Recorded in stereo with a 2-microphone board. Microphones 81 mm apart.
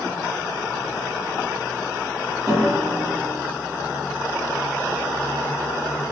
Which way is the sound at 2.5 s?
40° right (ahead or behind).